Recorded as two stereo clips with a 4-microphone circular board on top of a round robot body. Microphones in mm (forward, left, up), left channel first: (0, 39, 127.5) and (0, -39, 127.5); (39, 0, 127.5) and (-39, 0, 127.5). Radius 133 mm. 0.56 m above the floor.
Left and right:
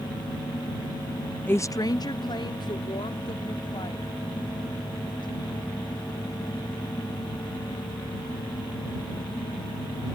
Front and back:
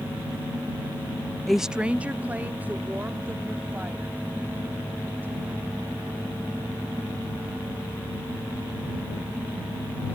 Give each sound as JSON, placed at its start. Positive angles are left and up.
{"t": 1.5, "sound": "a woman speaking", "azimuth_deg": 85}